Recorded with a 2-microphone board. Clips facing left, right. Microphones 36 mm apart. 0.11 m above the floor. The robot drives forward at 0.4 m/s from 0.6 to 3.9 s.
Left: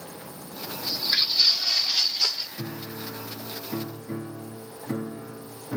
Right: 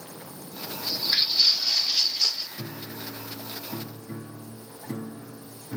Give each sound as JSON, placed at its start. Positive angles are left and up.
{"t": 0.8, "sound": "footsteps", "side_deg": 0, "distance_m": 2.0}
{"t": 2.6, "sound": "a piano", "side_deg": 20, "distance_m": 1.3}